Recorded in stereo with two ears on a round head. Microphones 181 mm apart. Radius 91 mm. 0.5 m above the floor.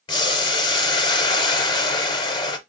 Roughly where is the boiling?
Left.